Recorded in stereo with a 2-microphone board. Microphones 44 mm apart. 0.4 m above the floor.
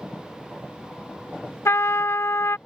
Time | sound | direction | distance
1.6 | a trumpet | 80° left | ?